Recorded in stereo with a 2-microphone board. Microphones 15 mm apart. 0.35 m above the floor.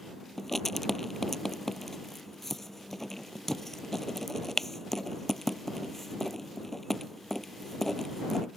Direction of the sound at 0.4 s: 15° left (ahead or behind).